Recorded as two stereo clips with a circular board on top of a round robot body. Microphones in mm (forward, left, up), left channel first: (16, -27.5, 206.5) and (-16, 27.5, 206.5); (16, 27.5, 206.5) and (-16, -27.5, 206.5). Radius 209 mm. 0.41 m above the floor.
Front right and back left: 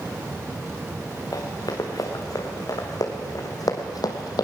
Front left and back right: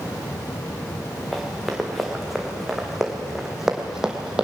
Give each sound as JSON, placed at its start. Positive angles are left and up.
{"t": 1.3, "sound": "running footsteps", "azimuth_deg": -30, "distance_m": 3.0}